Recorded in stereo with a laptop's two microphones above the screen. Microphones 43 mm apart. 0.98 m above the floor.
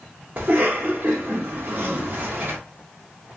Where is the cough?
45° right (ahead or behind), 1.4 m.